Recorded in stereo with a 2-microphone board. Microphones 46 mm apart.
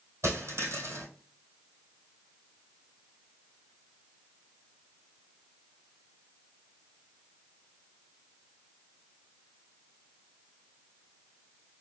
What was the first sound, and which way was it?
A dropped coin, 70° right (ahead or behind).